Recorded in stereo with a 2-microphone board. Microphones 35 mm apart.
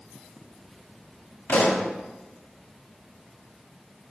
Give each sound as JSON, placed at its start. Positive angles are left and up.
{"t": 1.5, "sound": "a pop", "side_deg": 70, "distance_m": 0.8}